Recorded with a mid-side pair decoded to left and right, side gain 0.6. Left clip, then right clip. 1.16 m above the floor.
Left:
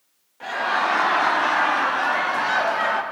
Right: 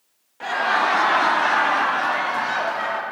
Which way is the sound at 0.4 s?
30° right.